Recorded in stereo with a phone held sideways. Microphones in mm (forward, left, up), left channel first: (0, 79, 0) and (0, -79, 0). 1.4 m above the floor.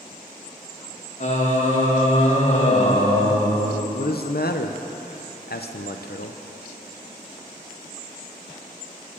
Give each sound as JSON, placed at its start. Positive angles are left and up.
{"t": 1.2, "sound": "singing", "side_deg": 45, "distance_m": 1.6}
{"t": 3.9, "sound": "a man speaking", "side_deg": 80, "distance_m": 0.7}